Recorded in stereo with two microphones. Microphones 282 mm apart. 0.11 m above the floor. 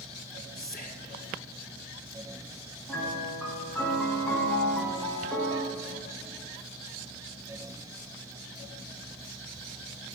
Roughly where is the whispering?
Left.